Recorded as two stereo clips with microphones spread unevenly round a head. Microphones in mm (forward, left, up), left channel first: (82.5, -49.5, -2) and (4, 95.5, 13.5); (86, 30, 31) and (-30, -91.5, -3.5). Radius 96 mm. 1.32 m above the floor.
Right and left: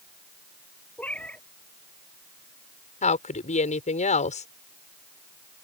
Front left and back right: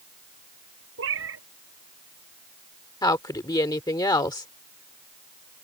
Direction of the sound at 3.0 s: 20° right.